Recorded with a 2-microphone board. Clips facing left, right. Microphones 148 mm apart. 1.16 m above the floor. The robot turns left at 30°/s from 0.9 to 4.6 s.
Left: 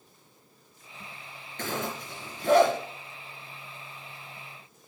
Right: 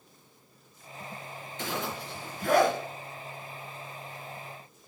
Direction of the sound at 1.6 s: 60° left (ahead or behind).